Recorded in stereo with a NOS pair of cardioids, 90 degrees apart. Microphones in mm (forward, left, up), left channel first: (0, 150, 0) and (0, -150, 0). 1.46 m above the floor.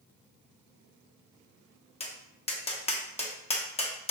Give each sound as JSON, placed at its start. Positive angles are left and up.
{"t": 2.0, "sound": "tapping", "azimuth_deg": 20, "distance_m": 0.7}